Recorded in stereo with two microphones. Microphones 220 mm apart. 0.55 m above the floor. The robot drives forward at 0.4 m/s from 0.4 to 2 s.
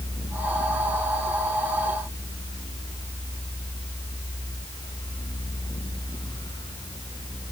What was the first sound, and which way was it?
Only background noise.